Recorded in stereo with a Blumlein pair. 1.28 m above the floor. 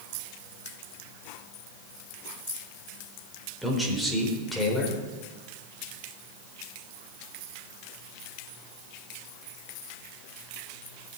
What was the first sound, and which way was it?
A man speaking, straight ahead.